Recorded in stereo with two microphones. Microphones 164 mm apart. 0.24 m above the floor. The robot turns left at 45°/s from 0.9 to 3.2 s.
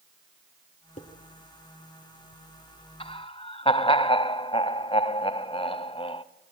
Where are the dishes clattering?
45° left (ahead or behind), 3.5 m; by 1.1 s 50° left (ahead or behind), 3.5 m.